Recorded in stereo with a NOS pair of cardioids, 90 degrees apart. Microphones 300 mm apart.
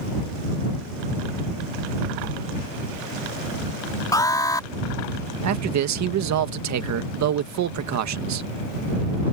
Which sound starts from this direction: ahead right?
A man speaking, at 5.4 s.